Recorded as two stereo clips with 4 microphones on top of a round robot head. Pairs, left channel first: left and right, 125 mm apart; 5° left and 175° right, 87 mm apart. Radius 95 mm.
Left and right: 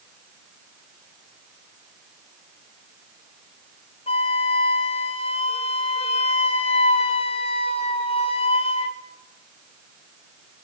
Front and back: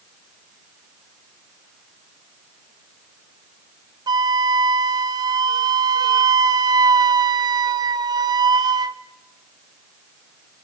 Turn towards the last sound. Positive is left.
turn(degrees=145)